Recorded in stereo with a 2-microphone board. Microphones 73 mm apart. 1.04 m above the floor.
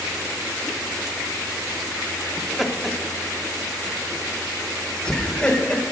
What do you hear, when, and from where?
2.4 s laughter: 5° right (ahead or behind), 2.5 m; by 5.8 s 15° left (ahead or behind), 4.5 m